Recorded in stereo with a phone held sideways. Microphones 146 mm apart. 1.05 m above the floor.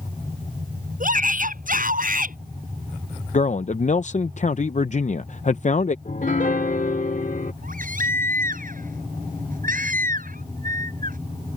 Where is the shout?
80° right; by 2.4 s 85° right.